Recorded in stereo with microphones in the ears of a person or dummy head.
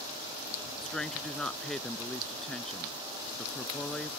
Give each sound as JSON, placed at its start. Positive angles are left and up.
{"t": 0.8, "sound": "a woman speaking", "side_deg": 0}